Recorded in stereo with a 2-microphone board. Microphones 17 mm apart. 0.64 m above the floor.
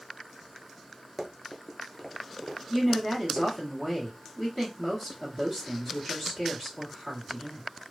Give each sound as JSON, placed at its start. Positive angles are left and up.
{"t": 1.2, "sound": "running footsteps", "side_deg": 10, "distance_m": 0.7}
{"t": 2.7, "sound": "a woman speaking", "side_deg": 5, "distance_m": 1.4}